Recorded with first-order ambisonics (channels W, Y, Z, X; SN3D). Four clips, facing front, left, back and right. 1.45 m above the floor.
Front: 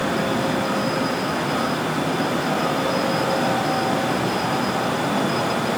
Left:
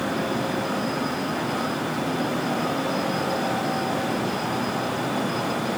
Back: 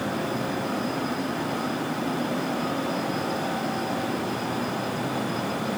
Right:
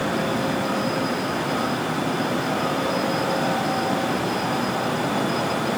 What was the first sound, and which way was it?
Only background noise.